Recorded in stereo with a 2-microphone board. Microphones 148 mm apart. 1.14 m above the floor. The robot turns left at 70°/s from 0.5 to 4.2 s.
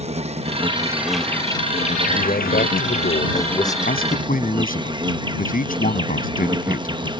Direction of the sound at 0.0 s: 135° right.